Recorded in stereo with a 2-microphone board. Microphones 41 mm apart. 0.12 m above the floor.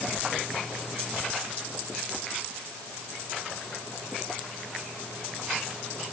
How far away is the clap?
I don't hear a clap.